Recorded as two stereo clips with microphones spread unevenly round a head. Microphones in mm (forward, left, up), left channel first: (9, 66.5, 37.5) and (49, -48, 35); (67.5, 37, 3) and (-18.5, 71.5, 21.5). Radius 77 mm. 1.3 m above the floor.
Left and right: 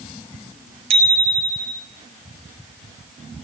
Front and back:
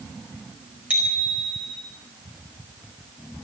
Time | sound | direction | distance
0.9 | a bicycle bell | 120° right | 4.5 m